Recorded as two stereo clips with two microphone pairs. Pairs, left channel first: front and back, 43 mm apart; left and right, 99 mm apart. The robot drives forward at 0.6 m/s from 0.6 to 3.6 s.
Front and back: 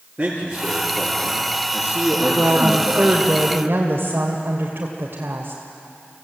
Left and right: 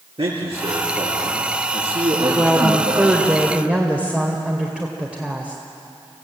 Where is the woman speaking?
160° right, 1.6 m; by 5.6 s 165° right, 2 m.